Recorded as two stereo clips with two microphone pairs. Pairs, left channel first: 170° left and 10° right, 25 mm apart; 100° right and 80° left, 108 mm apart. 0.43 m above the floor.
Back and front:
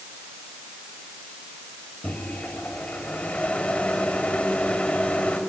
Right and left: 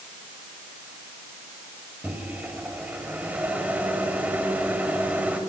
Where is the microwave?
155° left, 2 m.